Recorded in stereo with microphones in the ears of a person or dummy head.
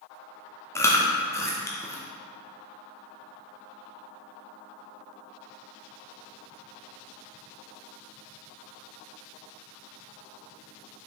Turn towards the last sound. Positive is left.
turn(degrees=15)  # may be behind; listen again after turning